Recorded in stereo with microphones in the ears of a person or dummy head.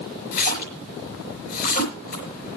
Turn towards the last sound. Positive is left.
turn(degrees=60)  # may be behind; listen again after turning